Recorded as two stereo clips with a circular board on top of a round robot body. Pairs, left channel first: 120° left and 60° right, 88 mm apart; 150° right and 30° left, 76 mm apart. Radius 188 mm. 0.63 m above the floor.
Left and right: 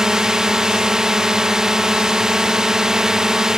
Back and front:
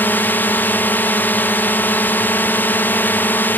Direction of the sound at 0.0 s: 135° right.